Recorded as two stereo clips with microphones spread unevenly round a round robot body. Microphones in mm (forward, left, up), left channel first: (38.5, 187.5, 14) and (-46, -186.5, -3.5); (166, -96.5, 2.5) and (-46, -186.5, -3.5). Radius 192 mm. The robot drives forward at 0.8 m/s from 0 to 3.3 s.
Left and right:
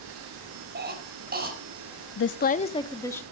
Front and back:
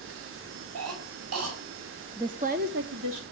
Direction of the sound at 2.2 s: 125° left.